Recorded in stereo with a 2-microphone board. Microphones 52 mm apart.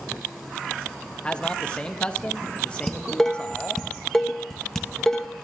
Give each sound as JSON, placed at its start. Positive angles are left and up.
{"t": 1.2, "sound": "a man speaking", "side_deg": 20, "distance_m": 0.6}
{"t": 2.9, "sound": "dishes clattering", "side_deg": 10, "distance_m": 0.8}